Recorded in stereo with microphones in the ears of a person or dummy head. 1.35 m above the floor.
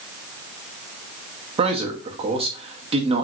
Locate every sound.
1.6 s a man speaking: 30° right (ahead or behind), 0.8 m